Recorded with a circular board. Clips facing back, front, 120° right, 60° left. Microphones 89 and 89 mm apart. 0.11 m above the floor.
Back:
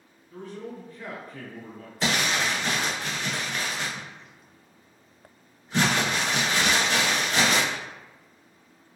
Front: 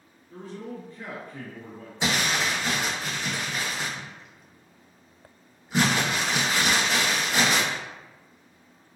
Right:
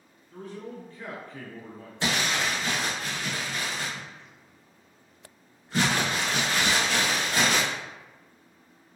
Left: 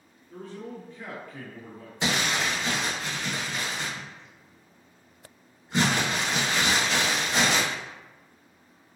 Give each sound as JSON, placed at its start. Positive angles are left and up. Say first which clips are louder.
{"t": 0.3, "sound": "a man speaking", "louder": "even, even", "azimuth_deg": 30, "distance_m": 1.6}
{"t": 2.0, "sound": "crumpling", "louder": "even, even", "azimuth_deg": 65, "distance_m": 1.0}